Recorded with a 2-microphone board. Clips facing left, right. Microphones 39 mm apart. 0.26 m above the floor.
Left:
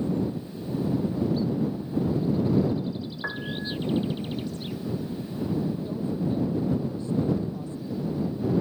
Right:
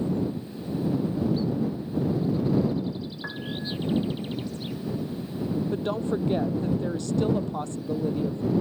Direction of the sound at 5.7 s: 80° right.